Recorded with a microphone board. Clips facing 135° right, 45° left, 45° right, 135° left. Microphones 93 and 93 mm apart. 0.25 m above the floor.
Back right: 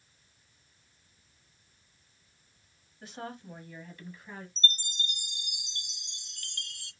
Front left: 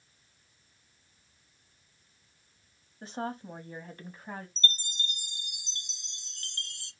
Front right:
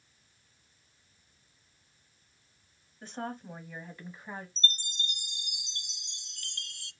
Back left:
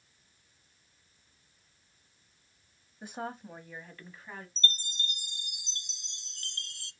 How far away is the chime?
About 0.6 m.